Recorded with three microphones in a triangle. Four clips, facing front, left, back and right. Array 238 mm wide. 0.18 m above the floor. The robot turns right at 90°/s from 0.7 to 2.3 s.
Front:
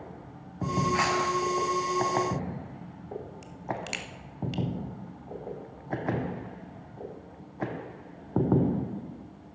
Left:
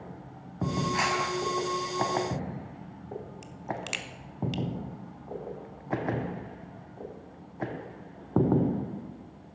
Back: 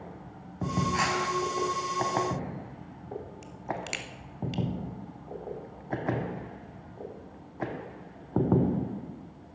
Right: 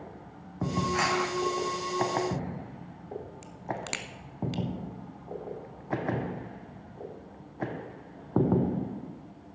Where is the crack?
90° right, 1.0 m.